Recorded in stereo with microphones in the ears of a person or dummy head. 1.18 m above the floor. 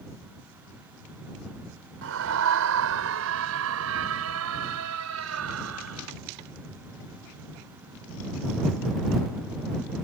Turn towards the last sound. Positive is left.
turn(degrees=-80)